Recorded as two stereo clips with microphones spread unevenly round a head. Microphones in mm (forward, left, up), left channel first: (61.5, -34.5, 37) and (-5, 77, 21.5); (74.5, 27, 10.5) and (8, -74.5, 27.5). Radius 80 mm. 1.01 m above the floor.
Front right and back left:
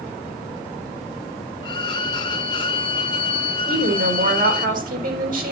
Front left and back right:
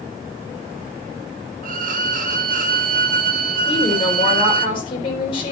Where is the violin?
120° right, 1.1 m.